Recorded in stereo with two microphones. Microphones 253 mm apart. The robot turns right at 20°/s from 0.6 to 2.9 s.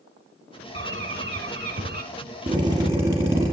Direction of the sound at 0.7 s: 45° right (ahead or behind).